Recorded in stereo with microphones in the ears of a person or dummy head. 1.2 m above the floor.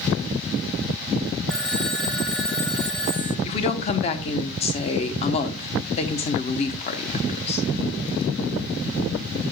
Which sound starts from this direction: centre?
A phone ringing, at 1.5 s.